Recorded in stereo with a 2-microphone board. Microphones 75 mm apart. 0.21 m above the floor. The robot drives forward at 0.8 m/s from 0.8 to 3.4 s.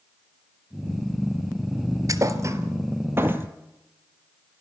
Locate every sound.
2.1 s a thud: 50° right (ahead or behind), 1.4 m; by 3.5 s 30° right (ahead or behind), 2 m